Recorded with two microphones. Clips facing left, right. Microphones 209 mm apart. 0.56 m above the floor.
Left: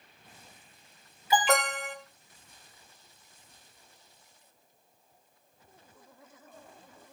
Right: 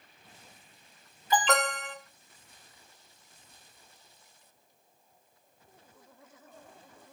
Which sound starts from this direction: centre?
An alarm, at 1.3 s.